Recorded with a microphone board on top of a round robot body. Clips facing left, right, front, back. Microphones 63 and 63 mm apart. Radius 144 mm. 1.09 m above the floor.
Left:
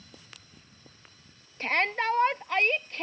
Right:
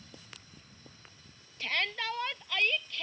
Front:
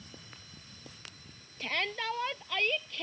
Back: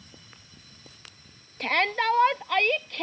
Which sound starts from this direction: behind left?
A shout, at 1.6 s.